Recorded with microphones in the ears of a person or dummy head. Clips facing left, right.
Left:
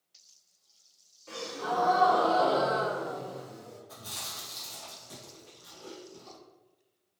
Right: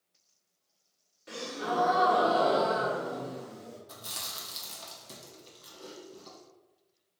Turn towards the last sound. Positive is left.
turn(degrees=-50)  # may be behind; listen again after turning